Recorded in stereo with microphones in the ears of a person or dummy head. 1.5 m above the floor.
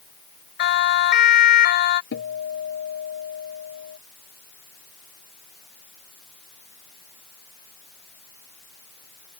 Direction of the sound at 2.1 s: 70° left (ahead or behind).